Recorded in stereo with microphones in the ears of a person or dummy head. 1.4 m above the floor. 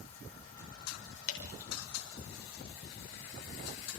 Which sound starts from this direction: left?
Dripping, at 1.3 s.